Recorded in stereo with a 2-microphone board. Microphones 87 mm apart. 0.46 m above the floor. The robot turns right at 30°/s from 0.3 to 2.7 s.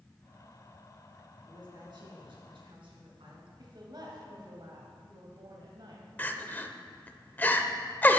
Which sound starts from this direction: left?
Crying, at 6.2 s.